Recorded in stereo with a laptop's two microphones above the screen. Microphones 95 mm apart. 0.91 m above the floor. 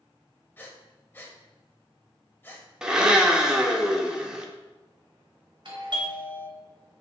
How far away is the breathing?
About 0.7 m.